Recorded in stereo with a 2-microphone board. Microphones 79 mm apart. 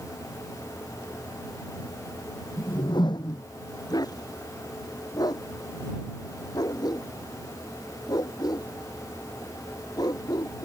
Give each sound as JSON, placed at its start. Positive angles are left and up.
{"t": 2.6, "sound": "a whoosh", "side_deg": 70}
{"t": 3.9, "sound": "a dog barking", "side_deg": 55}